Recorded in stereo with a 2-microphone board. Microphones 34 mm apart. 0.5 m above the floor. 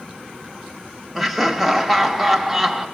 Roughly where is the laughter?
Centre.